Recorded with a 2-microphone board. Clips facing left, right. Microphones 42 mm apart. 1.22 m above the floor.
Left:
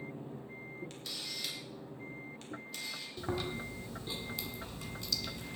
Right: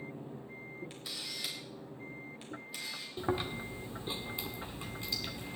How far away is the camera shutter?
About 3.5 m.